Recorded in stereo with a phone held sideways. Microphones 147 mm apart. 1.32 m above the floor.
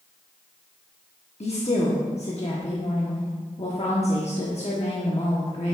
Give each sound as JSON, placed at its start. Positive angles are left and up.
{"t": 1.4, "sound": "a woman speaking", "side_deg": 50, "distance_m": 1.1}